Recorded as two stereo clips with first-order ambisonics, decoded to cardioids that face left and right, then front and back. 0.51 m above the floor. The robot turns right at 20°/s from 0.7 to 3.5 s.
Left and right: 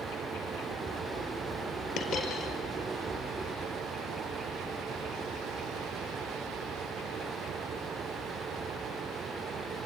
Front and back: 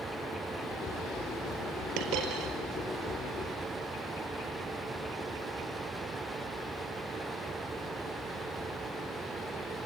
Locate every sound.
2.0 s a dropped coin: 140° left, 4.5 m; by 2.5 s 150° left, 4.5 m